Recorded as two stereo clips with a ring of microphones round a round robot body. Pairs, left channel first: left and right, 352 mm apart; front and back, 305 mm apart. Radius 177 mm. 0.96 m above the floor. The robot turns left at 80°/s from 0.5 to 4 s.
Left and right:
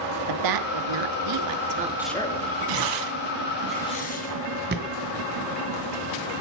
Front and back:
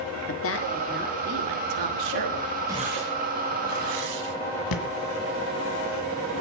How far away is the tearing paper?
About 2.5 m.